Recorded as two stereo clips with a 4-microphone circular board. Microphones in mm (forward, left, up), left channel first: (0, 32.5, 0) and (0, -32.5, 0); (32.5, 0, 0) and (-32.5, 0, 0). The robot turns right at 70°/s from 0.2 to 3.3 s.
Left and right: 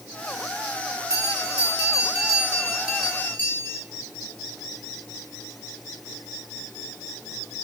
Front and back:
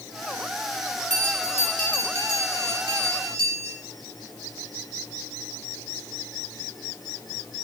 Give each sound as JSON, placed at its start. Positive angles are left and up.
{"t": 1.1, "sound": "a bell", "azimuth_deg": -130, "distance_m": 4.0}